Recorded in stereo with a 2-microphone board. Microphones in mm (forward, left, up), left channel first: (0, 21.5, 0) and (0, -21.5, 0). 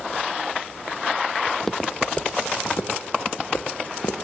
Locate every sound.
1.5 s footsteps: centre (ahead or behind), 0.8 m; by 4.2 s 60° left (ahead or behind), 2 m